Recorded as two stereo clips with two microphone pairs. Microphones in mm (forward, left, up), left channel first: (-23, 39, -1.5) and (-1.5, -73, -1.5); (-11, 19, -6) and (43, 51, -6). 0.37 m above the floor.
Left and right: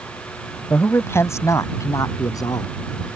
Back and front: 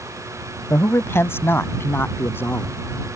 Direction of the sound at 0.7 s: 170° left.